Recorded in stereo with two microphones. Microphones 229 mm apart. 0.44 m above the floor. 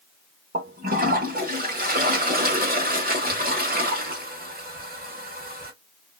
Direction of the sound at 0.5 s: 40° right (ahead or behind).